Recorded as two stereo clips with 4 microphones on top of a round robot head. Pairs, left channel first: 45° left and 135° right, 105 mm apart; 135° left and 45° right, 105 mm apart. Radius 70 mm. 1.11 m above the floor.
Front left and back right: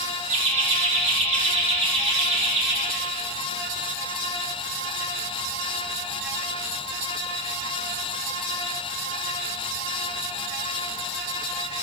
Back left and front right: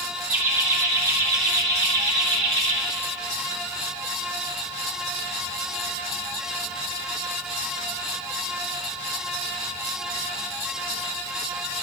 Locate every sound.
0.3 s laughter: 115° right, 3 m; by 2.8 s 90° right, 4.5 m